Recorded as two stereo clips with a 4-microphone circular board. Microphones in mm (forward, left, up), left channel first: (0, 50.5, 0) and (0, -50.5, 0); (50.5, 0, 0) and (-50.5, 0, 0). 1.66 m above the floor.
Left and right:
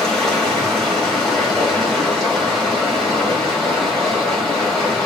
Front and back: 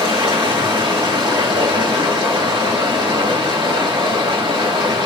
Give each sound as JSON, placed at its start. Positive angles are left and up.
{"t": 0.0, "sound": "running water", "azimuth_deg": 175, "distance_m": 2.5}